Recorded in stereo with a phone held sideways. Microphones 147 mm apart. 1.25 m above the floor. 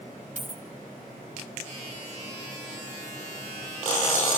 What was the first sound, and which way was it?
A dropped coin, 60° right (ahead or behind).